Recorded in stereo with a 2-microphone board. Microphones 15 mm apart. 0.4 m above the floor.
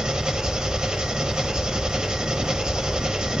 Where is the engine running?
70° right (ahead or behind), 0.8 m.